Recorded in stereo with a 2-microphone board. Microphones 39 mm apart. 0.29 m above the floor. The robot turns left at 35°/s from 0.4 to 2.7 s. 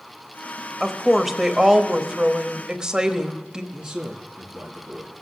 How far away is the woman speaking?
About 0.9 m.